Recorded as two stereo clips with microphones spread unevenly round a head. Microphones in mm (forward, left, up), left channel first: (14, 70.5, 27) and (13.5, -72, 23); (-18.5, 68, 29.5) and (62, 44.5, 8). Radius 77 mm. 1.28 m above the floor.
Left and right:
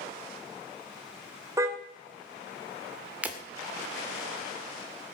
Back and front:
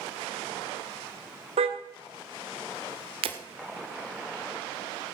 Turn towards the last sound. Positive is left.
turn(degrees=-10)